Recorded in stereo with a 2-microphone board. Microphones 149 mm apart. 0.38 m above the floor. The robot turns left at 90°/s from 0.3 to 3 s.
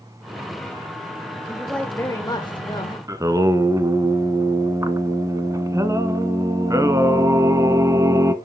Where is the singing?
20° right (ahead or behind), 1.0 m.